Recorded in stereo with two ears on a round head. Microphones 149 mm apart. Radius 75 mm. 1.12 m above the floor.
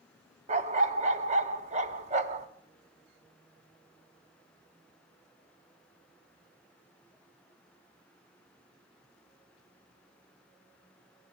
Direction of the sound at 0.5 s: 40° right (ahead or behind).